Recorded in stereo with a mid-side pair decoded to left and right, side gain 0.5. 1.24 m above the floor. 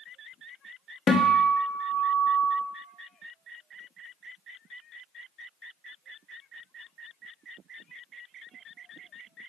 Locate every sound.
1.1 s a guitar: 45° left, 0.8 m